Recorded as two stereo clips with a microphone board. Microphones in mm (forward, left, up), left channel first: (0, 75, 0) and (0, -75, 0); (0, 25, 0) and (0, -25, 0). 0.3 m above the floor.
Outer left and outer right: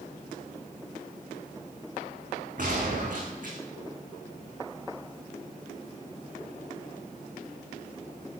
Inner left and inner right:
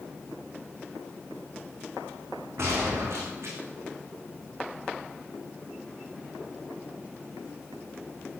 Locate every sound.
2.6 s a gunshot: 60° right (ahead or behind), 7.5 m